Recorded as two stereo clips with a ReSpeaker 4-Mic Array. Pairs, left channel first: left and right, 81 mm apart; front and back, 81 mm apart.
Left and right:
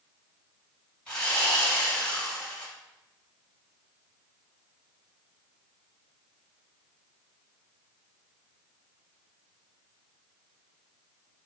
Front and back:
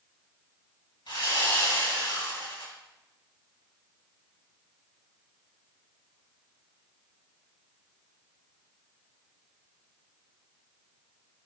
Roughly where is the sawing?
Ahead.